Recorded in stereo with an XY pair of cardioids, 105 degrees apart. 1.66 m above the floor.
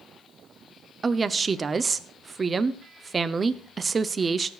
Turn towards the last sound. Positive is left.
turn(degrees=-35)